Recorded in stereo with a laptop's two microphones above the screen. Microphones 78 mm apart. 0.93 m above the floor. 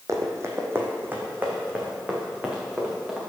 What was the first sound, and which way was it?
Running footsteps, 40° right (ahead or behind).